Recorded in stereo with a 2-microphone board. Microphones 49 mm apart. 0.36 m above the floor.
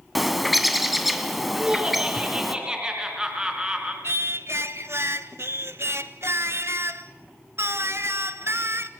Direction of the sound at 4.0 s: 65° right (ahead or behind).